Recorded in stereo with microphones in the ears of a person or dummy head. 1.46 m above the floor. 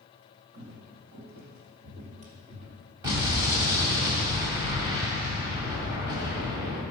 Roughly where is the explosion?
Centre.